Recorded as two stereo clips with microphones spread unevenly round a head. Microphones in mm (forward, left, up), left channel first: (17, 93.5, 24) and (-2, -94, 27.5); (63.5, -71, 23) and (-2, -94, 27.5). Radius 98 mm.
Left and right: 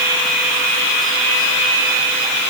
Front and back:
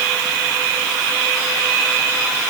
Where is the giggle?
I don't hear a giggle.